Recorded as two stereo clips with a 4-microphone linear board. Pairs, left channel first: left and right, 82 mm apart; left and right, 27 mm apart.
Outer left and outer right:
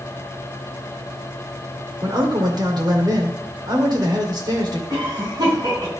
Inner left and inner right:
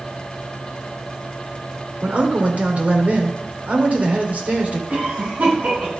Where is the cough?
55° right (ahead or behind), 5 m.